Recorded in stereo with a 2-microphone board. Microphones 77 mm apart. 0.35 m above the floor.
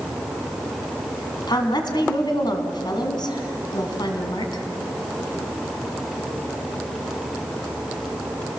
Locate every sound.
1.5 s a woman speaking: 70° left (ahead or behind), 3 m